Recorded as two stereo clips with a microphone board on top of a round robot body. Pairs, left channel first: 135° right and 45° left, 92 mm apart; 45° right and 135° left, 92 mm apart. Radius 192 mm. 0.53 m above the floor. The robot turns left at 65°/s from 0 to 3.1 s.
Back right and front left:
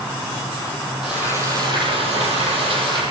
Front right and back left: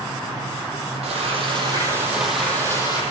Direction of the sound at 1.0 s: 130° left.